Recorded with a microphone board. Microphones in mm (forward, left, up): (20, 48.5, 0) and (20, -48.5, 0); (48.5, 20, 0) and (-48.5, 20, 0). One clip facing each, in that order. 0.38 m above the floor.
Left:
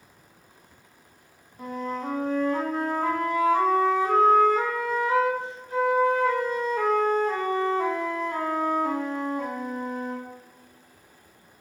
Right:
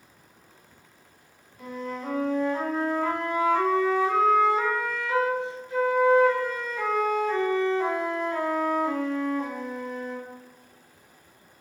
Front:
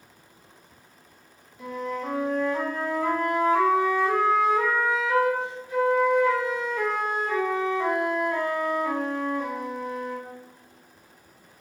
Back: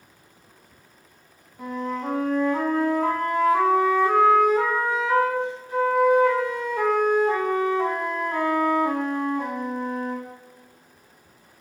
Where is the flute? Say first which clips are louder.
Left 3 dB, back 2 dB; 135° left, 0.7 m.